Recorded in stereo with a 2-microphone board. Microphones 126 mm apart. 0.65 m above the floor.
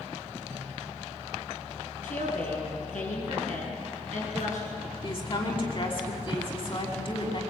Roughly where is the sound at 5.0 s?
Left.